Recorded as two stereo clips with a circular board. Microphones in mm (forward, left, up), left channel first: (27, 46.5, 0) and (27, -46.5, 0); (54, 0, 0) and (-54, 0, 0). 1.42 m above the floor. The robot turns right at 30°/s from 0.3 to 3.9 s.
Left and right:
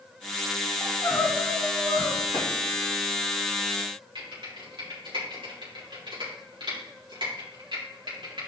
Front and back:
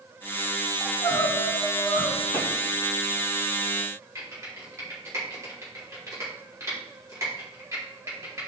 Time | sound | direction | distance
0.8 | crying | 35° left | 1.7 m
2.3 | a clap | 135° left | 2.5 m
4.2 | typing on a keyboard | 120° right | 3 m